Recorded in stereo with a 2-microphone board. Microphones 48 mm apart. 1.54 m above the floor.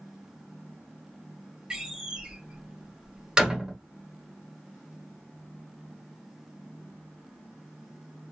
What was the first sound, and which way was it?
A door slam, 20° right (ahead or behind).